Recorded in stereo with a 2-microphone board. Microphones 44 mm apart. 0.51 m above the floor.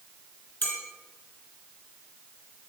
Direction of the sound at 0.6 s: 50° left (ahead or behind).